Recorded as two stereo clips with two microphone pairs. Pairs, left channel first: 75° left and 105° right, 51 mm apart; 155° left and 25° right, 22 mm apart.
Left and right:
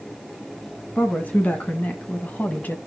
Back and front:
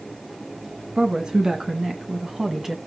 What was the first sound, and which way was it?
A woman speaking, 25° left.